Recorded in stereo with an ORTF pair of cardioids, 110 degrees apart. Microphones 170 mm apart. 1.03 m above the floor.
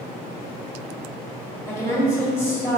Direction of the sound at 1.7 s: 20° left.